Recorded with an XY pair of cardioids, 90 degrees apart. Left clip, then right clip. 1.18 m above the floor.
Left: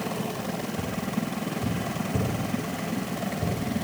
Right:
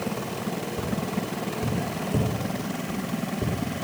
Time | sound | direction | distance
0.8 | tapping | 70° right | 3.5 m